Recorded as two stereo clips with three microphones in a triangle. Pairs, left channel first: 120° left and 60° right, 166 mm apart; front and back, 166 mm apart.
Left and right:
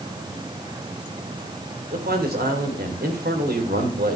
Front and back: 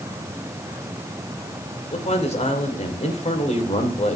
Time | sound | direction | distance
1.9 | a man speaking | 50° right | 3 m